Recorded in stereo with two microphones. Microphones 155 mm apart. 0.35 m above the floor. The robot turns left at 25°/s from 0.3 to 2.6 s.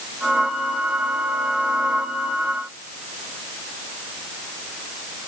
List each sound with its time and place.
Only background noise.